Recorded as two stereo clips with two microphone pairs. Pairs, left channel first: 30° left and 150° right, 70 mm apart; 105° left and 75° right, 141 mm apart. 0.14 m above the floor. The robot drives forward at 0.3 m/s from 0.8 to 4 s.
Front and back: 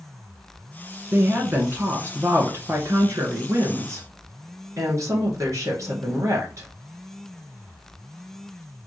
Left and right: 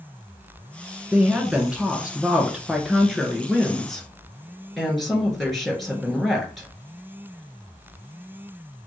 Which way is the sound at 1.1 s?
145° right.